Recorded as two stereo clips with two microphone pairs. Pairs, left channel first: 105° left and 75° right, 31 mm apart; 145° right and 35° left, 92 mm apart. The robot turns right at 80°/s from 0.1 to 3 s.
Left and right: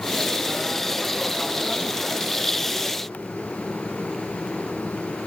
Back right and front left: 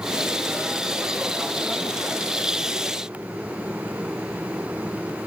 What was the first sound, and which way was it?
Only background noise.